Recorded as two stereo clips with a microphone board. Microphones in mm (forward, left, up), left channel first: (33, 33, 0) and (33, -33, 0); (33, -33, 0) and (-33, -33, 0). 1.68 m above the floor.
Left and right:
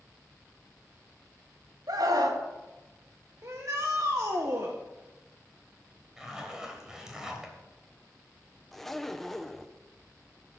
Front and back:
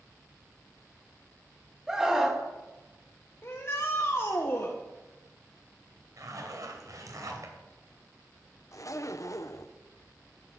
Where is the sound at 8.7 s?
5° left, 0.7 m.